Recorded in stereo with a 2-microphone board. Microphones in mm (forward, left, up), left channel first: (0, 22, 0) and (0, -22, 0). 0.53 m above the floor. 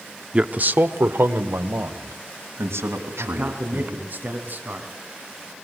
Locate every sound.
0.3 s a man speaking: 25° right (ahead or behind), 0.9 m; by 4.0 s 80° right, 4.5 m
3.2 s a man speaking: 45° right (ahead or behind), 3.5 m